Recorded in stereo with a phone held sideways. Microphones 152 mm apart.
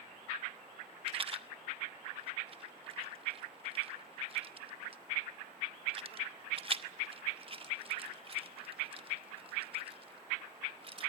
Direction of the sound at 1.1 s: 35° right (ahead or behind).